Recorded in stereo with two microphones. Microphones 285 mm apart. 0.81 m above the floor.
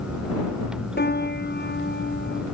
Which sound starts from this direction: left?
A piano, at 1.0 s.